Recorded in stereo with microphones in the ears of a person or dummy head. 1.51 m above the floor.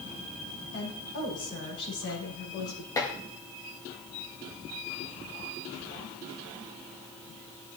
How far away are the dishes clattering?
About 1.2 m.